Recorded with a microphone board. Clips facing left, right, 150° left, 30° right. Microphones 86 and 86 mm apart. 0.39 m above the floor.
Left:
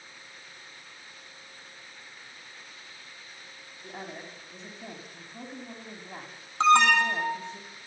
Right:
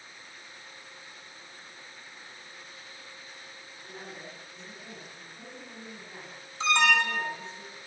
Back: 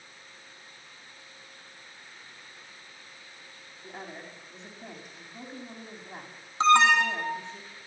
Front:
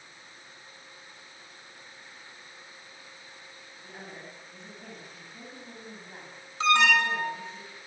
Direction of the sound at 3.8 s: 85° left.